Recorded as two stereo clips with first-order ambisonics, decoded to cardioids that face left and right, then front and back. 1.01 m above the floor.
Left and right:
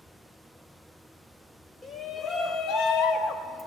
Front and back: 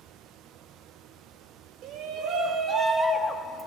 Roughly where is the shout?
Behind left.